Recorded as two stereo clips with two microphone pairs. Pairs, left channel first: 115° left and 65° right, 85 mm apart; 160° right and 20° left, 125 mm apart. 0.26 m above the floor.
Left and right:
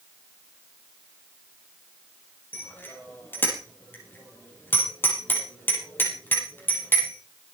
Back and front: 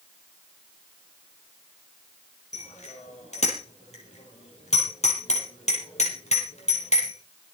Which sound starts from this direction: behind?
A bicycle bell, at 2.5 s.